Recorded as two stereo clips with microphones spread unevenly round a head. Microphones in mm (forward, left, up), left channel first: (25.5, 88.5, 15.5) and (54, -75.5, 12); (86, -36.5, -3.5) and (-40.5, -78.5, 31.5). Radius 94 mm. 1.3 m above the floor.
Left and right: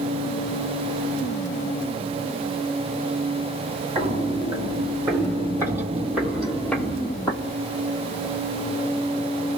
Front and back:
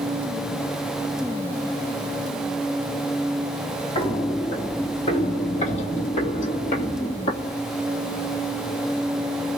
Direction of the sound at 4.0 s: 30° right.